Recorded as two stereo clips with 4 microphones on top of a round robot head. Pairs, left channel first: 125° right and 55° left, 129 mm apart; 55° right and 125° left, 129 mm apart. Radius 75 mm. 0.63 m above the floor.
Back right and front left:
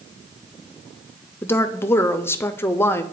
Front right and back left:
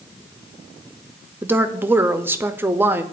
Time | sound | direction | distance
1.4 | a woman speaking | 175° right | 0.5 m